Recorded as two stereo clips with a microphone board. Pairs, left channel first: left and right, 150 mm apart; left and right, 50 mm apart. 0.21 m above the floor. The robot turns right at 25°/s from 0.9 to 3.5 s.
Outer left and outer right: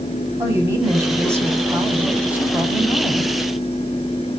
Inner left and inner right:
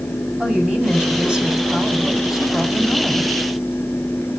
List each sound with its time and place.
0.4 s a woman speaking: 20° right (ahead or behind), 1.5 m; by 3.3 s centre (ahead or behind), 1.5 m